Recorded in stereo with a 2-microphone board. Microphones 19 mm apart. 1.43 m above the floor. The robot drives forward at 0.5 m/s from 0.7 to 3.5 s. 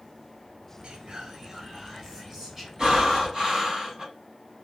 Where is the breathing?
40° right (ahead or behind), 4.5 m; by 4.0 s 35° right (ahead or behind), 4.5 m.